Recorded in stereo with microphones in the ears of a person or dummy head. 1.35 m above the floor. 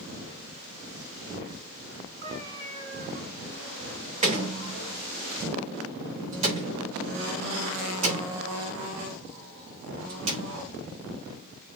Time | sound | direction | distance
2.2 | a cat meowing | 45° right (ahead or behind) | 5.5 m
4.2 | a door slam | 30° right (ahead or behind) | 3 m